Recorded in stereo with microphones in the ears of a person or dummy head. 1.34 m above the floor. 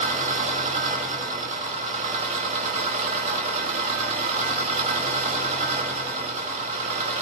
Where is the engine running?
45° right (ahead or behind), 2.5 m.